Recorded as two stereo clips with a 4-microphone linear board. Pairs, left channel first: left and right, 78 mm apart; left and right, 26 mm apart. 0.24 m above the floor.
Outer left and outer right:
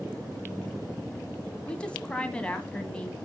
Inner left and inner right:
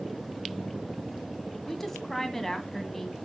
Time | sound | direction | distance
1.7 | a woman speaking | 15° left (ahead or behind) | 1.9 m